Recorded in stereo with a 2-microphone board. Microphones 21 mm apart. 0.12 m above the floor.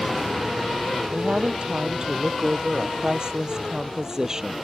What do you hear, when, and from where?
1.1 s a woman speaking: 55° right (ahead or behind); by 4.5 s 25° right (ahead or behind)